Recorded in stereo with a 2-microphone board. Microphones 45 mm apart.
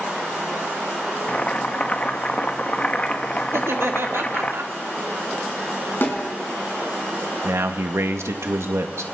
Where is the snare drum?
50° left (ahead or behind), 6 m.